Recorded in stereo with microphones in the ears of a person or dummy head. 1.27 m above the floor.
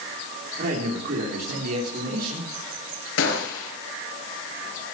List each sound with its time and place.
0.6 s a man speaking: 60° right (ahead or behind), 3.5 m
3.2 s a gunshot: 75° left (ahead or behind), 4 m